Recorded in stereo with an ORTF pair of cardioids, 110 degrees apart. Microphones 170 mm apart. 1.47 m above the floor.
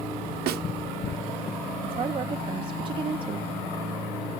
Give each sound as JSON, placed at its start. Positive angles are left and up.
{"t": 0.5, "sound": "a snare drum", "azimuth_deg": -70, "distance_m": 1.2}
{"t": 1.8, "sound": "a woman speaking", "azimuth_deg": -30, "distance_m": 0.8}